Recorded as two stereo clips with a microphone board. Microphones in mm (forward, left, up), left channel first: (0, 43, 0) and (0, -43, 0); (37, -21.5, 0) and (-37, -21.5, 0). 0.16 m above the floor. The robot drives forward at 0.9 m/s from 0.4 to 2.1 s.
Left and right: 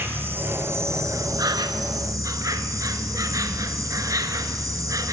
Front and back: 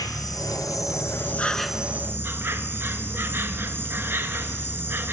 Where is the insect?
25° right, 1.3 m; by 5.1 s 125° right, 0.8 m.